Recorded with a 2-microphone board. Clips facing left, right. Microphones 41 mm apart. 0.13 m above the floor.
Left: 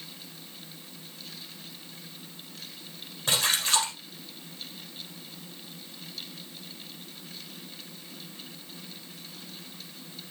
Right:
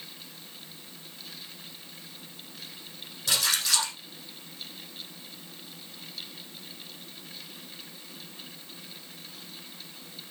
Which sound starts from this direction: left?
A splash, at 3.3 s.